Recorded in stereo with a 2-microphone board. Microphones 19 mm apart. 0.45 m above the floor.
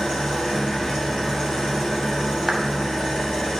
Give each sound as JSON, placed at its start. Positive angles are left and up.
{"t": 0.0, "sound": "an engine running", "side_deg": 50, "distance_m": 4.5}
{"t": 2.5, "sound": "a clap", "side_deg": -40, "distance_m": 2.5}